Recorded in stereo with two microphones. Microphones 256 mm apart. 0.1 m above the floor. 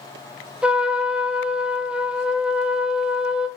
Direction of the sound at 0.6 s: 5° right (ahead or behind).